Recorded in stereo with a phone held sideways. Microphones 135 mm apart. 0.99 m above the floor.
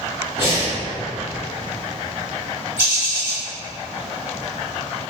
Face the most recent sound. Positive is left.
turn(degrees=-25)  # may be behind; listen again after turning